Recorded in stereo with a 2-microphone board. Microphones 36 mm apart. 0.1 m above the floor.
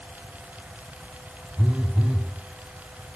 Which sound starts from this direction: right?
A phone buzzing, at 1.6 s.